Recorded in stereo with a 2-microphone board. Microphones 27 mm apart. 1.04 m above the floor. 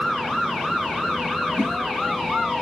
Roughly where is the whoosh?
Right.